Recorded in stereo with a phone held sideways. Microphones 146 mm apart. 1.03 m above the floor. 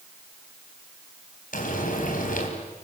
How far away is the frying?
About 4.5 m.